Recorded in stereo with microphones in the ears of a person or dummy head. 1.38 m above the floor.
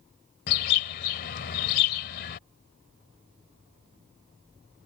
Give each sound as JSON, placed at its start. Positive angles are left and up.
{"t": 0.5, "sound": "a bird", "side_deg": 45}